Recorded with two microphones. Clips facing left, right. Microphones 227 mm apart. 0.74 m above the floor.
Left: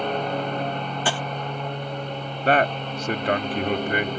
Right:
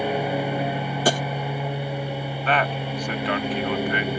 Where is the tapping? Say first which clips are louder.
Right 7 dB; 40° right (ahead or behind).